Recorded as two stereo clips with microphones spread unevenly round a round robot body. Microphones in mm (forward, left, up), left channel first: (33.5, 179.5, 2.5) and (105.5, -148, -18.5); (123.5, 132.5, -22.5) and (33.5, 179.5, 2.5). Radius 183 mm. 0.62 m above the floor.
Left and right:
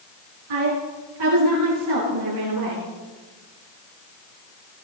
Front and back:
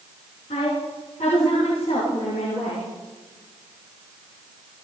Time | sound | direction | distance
0.5 | a woman speaking | 90° right | 6.5 m